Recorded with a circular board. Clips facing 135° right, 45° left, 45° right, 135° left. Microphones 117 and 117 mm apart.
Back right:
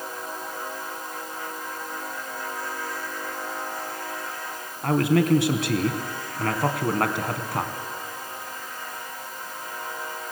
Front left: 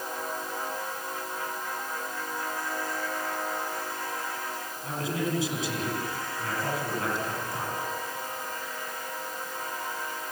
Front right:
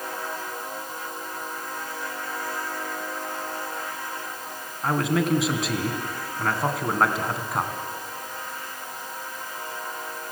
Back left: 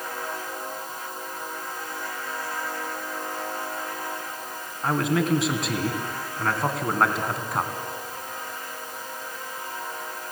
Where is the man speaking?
135° right, 3 m.